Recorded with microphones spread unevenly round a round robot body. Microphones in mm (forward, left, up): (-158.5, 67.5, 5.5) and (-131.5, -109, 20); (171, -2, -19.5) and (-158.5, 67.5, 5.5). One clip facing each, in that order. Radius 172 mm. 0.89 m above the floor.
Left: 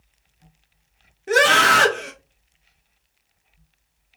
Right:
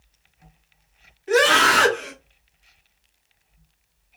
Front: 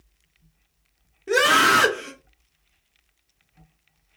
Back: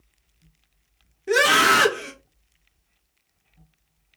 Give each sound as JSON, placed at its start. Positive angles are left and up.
{"t": 1.3, "sound": "a scream", "azimuth_deg": 80, "distance_m": 0.7}